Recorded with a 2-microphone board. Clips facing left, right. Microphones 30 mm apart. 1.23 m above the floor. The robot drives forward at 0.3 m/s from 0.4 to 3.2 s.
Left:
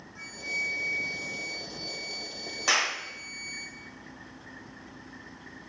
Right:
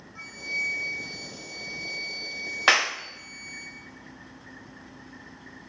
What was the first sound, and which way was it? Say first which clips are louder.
A flute: right 2 dB; 15° right (ahead or behind).